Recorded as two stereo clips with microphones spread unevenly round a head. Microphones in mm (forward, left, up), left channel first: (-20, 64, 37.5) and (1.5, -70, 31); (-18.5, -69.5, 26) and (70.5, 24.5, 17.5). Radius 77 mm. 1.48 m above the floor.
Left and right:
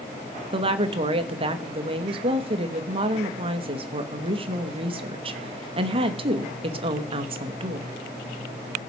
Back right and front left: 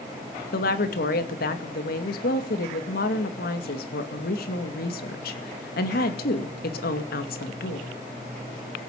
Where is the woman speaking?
130° right, 2.5 m.